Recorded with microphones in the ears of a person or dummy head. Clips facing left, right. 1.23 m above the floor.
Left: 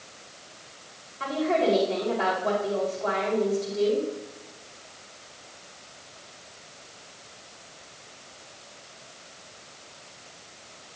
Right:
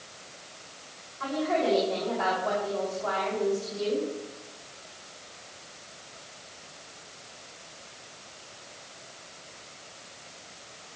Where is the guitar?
I don't hear a guitar.